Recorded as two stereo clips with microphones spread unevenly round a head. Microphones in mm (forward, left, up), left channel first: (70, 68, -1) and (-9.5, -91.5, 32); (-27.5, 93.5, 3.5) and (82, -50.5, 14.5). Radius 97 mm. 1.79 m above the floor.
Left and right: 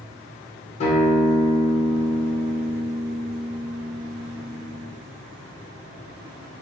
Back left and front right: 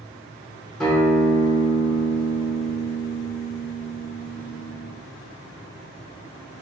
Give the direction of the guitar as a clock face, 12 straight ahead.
11 o'clock.